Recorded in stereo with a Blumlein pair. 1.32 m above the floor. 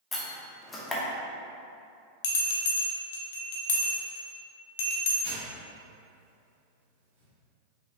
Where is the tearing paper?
45° right, 1.6 m.